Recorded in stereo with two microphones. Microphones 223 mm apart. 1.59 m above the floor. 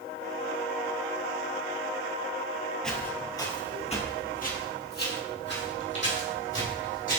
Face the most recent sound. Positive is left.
turn(degrees=60)  # may be behind; listen again after turning